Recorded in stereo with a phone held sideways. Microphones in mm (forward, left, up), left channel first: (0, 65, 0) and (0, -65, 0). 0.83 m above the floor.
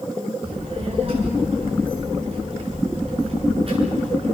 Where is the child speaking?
45° right (ahead or behind), 7.5 m.